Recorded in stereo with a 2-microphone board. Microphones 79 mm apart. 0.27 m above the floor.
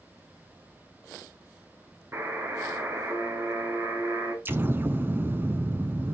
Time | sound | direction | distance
2.1 | a buzzer | 35° right (ahead or behind) | 3 m
4.5 | an explosion | 30° right (ahead or behind) | 0.6 m